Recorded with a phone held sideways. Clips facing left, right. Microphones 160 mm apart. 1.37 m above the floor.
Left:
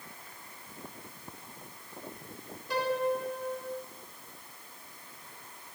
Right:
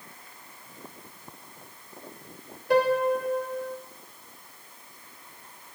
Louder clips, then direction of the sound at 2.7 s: Right 8 dB; 55° right (ahead or behind).